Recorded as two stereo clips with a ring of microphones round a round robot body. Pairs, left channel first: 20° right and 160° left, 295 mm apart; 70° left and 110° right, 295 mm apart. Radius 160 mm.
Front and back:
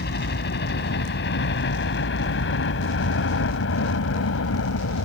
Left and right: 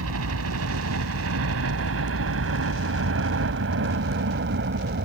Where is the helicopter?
75° right; by 5.0 s 60° right.